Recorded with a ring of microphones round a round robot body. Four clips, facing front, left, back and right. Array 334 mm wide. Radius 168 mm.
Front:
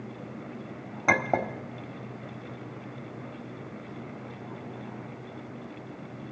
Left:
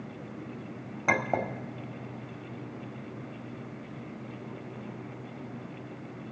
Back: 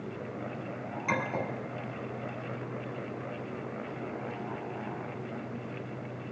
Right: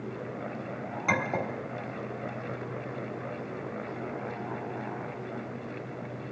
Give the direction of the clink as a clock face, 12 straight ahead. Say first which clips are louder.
Left 2 dB, front 6 dB; 11 o'clock.